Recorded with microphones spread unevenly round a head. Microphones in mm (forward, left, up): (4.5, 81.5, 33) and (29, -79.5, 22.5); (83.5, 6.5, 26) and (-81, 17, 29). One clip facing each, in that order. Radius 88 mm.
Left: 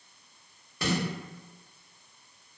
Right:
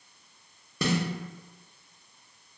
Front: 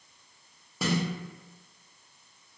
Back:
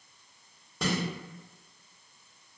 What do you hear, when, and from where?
0.8 s a snare drum: 90° right, 0.7 m